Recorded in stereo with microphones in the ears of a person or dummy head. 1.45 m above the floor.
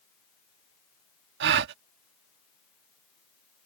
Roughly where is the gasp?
Right.